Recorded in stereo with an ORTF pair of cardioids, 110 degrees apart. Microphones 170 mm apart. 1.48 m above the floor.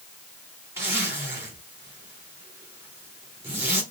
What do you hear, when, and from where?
0.8 s a zipper: 15° right, 3 m